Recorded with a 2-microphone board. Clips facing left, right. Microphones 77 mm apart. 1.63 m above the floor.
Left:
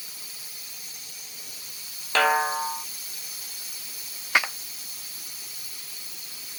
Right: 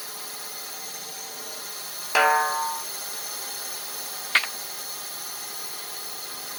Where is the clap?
15° left (ahead or behind).